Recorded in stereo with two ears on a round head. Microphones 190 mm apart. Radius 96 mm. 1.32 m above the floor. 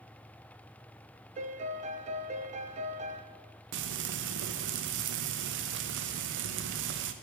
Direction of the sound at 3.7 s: 65° right (ahead or behind).